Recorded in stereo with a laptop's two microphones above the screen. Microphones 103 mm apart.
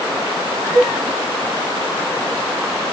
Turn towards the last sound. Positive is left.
turn(degrees=20)  # may be behind; listen again after turning